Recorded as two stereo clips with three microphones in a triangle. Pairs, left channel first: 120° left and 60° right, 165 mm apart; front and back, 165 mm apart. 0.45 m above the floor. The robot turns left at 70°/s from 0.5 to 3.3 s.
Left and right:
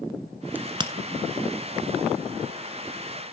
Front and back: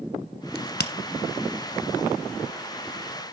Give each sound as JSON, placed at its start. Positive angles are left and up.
{"t": 0.6, "sound": "a crack", "azimuth_deg": 20, "distance_m": 1.2}